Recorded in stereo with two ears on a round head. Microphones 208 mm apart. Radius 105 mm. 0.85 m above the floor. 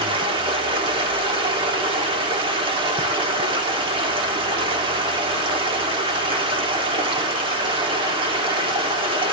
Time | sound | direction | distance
0.0 | running water | 20° right (ahead or behind) | 1.1 m